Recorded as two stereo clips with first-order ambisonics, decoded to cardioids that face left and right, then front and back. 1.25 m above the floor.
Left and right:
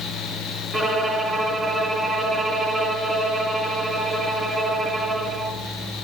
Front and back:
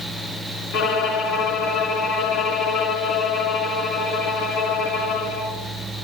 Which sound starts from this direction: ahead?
A violin, at 0.7 s.